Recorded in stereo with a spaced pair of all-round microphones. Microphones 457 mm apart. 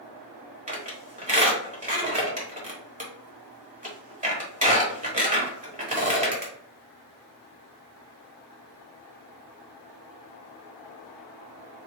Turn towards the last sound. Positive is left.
turn(degrees=-15)  # may be behind; listen again after turning